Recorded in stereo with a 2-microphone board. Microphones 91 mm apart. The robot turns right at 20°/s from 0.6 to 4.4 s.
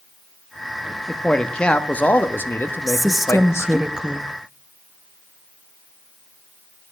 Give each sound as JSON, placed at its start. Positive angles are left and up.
{"t": 1.1, "sound": "a man speaking", "azimuth_deg": 10, "distance_m": 0.6}
{"t": 2.9, "sound": "a woman speaking", "side_deg": 0, "distance_m": 0.5}